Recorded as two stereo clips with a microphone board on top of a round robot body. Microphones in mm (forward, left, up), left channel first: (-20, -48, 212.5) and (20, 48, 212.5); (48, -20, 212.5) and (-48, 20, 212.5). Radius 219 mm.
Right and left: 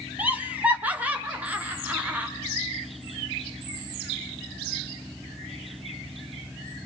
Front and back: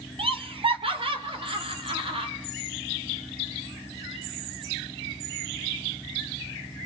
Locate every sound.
0.2 s laughter: 145° left, 2 m